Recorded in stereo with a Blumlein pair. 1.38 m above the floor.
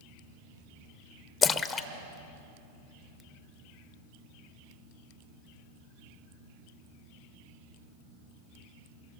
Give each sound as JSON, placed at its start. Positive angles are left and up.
{"t": 1.4, "sound": "a splash", "azimuth_deg": 20, "distance_m": 1.0}